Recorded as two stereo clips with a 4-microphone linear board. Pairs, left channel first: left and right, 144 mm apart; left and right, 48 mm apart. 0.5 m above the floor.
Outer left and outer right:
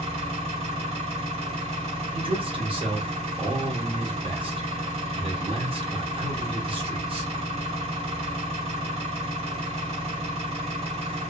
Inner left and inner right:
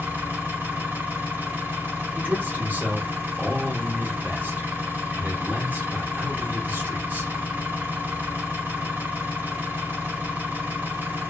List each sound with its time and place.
0.0 s an engine running: 45° right (ahead or behind), 1.3 m
2.1 s a man speaking: 40° right (ahead or behind), 1.0 m